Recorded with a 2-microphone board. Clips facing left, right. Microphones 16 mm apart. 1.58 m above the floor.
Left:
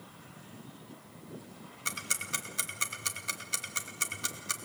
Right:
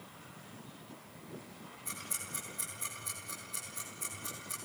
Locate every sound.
1.9 s ticking: 85° left, 2.5 m